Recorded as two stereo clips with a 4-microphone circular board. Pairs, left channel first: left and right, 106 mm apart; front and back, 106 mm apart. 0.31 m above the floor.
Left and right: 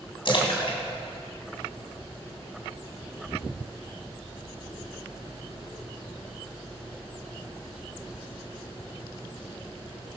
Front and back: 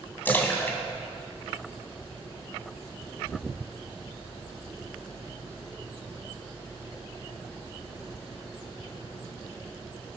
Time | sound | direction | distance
0.2 | a splash | 70° left | 2 m